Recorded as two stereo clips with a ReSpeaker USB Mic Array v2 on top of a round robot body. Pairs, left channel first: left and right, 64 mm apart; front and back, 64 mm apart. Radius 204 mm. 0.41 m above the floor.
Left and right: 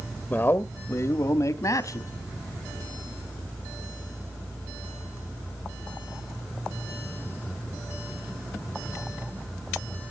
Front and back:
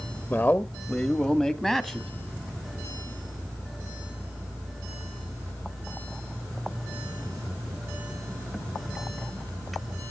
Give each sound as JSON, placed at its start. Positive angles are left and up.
{"t": 0.3, "sound": "a man speaking", "azimuth_deg": 45, "distance_m": 1.1}